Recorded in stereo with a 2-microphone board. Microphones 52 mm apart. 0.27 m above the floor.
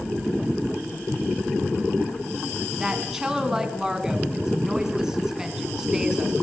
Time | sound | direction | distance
2.8 | a woman speaking | 10° right (ahead or behind) | 3 m